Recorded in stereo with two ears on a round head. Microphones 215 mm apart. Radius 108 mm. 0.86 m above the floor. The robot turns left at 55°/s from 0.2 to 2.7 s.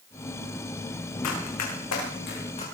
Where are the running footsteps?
70° left (ahead or behind), 5.5 m; by 2.6 s 25° left (ahead or behind), 4.5 m.